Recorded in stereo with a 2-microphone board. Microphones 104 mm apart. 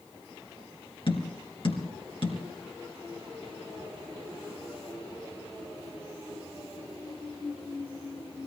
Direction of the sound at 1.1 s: 55° left (ahead or behind).